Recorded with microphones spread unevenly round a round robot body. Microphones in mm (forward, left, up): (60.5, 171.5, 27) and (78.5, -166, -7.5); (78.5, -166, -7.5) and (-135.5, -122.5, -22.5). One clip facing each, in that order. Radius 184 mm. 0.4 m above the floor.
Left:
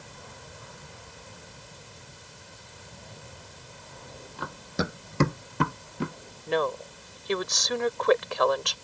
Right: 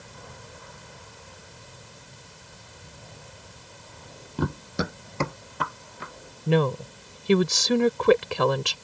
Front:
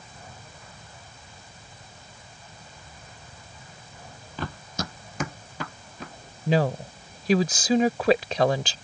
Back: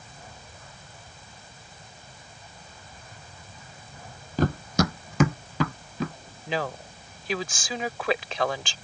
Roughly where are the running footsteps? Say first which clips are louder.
Right 4 dB, back 10 dB; behind right.